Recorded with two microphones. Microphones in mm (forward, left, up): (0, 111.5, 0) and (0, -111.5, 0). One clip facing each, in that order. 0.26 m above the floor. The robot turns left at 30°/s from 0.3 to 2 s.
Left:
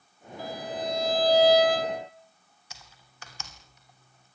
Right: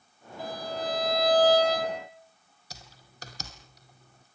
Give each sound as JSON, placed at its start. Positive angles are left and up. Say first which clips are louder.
{"t": 0.4, "sound": "a violin", "louder": "even", "azimuth_deg": -160, "distance_m": 6.5}
{"t": 2.7, "sound": "typing on a keyboard", "louder": "right 4 dB", "side_deg": -35, "distance_m": 2.5}